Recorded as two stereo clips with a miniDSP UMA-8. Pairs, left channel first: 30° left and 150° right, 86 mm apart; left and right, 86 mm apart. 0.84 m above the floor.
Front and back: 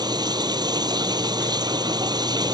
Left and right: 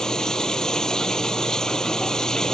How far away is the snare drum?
No snare drum in this recording.